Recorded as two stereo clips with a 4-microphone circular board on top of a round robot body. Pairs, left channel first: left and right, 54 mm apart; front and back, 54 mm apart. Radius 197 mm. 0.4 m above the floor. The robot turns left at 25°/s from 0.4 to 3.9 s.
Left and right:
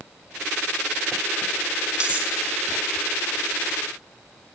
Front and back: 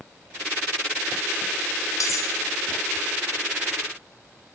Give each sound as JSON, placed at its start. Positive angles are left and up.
{"t": 2.0, "sound": "cutlery clinking", "azimuth_deg": -20, "distance_m": 1.0}